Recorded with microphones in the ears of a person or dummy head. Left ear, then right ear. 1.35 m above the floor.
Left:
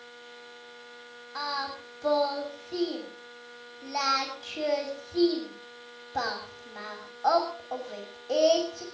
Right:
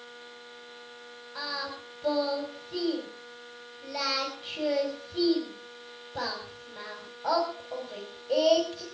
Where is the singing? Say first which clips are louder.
Left 2 dB; 55° left (ahead or behind), 6.5 m.